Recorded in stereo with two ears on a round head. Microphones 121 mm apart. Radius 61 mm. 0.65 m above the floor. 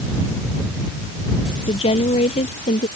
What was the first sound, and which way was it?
A woman speaking, 45° left (ahead or behind).